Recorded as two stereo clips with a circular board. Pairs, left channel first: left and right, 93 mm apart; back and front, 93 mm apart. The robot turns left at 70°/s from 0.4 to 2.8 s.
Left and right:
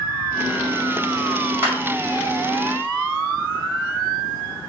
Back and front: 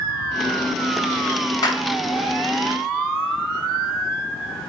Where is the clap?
150° right, 1.9 m; by 1.8 s 160° right, 1.9 m.